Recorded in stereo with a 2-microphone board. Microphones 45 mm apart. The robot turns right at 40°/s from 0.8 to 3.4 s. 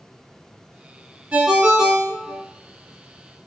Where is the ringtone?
45° right, 0.6 m; by 2.4 s 5° right, 0.6 m.